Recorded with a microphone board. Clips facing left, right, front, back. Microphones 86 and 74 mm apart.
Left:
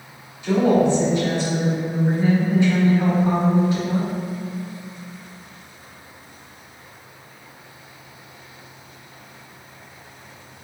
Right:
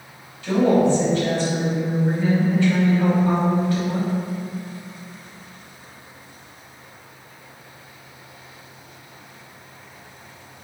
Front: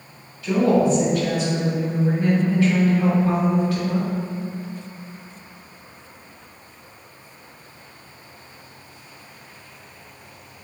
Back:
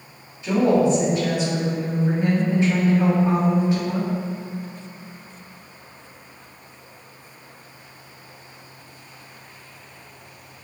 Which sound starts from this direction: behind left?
A woman speaking, at 0.4 s.